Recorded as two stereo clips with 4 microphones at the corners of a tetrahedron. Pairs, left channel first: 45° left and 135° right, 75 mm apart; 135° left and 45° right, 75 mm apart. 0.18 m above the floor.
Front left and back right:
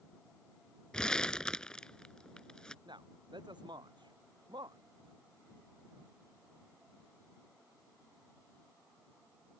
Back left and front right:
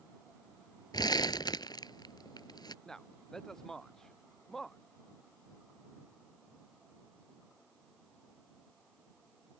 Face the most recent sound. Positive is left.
turn(degrees=-140)